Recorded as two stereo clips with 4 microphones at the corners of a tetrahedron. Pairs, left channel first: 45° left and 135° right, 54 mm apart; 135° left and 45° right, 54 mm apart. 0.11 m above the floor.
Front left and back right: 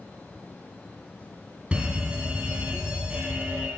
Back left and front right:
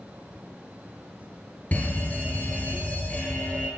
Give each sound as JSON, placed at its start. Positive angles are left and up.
{"t": 1.7, "sound": "a fire alarm", "azimuth_deg": 170, "distance_m": 3.0}